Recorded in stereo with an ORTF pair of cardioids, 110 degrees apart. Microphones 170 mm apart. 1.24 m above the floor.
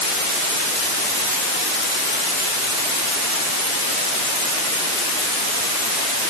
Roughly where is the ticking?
I don't hear ticking.